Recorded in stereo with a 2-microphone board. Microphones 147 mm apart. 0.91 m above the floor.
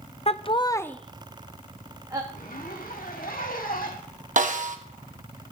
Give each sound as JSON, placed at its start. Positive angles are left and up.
{"t": 0.3, "sound": "laughter", "side_deg": 45, "distance_m": 0.6}
{"t": 2.3, "sound": "a zipper", "side_deg": 70, "distance_m": 1.7}
{"t": 4.4, "sound": "a snare drum", "side_deg": -60, "distance_m": 1.2}